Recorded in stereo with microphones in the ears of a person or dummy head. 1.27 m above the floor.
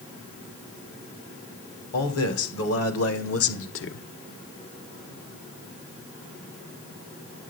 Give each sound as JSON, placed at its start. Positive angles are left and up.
{"t": 1.9, "sound": "a man speaking", "side_deg": 75, "distance_m": 2.0}